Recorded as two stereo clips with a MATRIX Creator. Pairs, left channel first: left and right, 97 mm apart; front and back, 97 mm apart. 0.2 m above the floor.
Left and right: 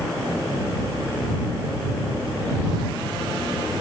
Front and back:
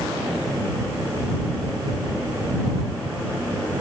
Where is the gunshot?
I don't hear a gunshot.